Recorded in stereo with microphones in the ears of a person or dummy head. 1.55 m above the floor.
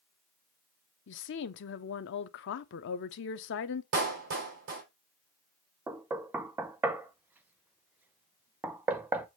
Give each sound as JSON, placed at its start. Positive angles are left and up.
{"t": 1.1, "sound": "a woman speaking", "side_deg": 60, "distance_m": 0.8}
{"t": 3.9, "sound": "a clap", "side_deg": -60, "distance_m": 4.0}
{"t": 5.9, "sound": "knocking", "side_deg": -10, "distance_m": 0.7}